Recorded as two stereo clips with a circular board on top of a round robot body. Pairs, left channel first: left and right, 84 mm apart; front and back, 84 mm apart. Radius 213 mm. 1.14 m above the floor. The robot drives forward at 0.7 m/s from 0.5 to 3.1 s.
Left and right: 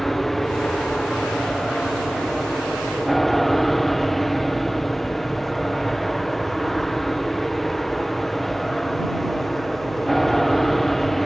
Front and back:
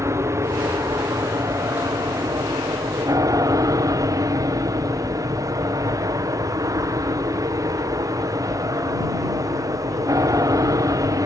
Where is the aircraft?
175° left.